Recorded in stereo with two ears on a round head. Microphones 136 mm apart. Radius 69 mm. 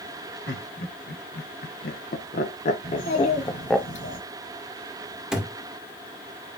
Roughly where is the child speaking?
Left.